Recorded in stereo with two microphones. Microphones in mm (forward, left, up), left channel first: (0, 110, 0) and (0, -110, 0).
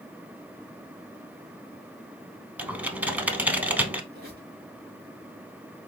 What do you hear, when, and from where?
2.6 s typing on a keyboard: 5° right (ahead or behind), 0.5 m
4.1 s a squeak: 45° right (ahead or behind), 2.5 m